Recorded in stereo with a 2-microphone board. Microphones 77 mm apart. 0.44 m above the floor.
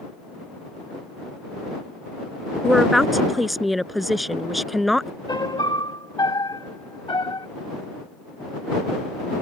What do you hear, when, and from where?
2.6 s a woman speaking: centre (ahead or behind)
5.3 s a piano: 75° left (ahead or behind)